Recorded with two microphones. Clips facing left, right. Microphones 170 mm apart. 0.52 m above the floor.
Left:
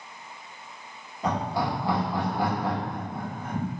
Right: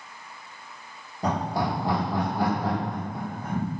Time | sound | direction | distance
1.2 | laughter | 45° right (ahead or behind) | 0.9 m